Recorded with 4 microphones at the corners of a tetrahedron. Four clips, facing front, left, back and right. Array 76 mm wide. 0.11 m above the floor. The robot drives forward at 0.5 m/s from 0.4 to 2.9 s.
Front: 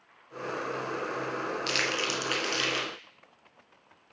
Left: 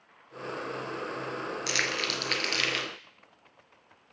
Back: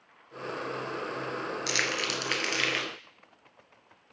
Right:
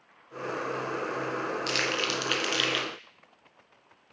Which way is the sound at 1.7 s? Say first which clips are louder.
Left 1 dB, back 1 dB; 125° left.